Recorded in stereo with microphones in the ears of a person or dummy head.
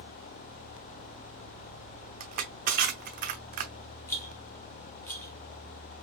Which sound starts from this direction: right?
Crushing, at 2.2 s.